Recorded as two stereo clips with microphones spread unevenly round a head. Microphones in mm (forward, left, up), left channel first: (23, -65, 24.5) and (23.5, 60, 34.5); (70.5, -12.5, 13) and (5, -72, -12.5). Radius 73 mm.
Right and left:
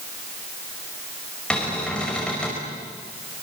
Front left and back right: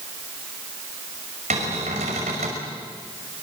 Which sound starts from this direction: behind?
A cupboard door, at 1.5 s.